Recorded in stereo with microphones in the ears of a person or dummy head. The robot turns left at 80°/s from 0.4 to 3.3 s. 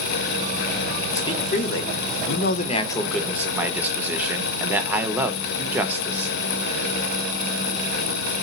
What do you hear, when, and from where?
1.1 s a man speaking: 160° left, 0.7 m; by 6.3 s 15° right, 0.7 m